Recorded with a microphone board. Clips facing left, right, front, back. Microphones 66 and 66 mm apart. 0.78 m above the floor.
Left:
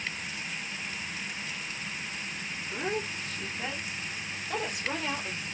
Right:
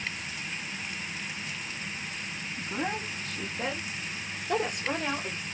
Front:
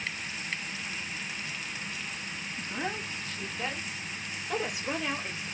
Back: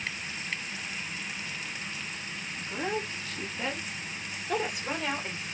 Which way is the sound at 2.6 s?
85° right.